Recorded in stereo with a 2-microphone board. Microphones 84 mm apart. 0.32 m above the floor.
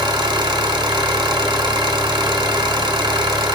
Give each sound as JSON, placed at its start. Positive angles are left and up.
{"t": 0.0, "sound": "an engine running", "side_deg": -65, "distance_m": 0.9}